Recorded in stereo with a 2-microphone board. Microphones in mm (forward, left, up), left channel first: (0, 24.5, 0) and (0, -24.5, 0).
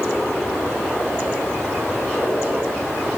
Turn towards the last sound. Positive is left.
No sound to turn to.